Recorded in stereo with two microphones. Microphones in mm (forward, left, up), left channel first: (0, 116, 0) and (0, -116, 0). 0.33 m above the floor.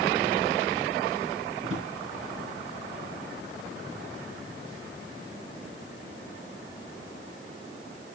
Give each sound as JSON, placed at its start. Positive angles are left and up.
{"t": 1.6, "sound": "a drawer", "side_deg": -70, "distance_m": 3.0}